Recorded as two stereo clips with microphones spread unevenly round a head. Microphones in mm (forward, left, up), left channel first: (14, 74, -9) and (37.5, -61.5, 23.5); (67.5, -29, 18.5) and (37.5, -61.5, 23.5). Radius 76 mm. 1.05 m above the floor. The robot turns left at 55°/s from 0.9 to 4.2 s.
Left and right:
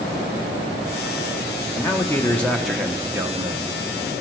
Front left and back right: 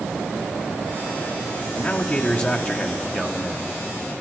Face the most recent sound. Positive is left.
turn(degrees=-55)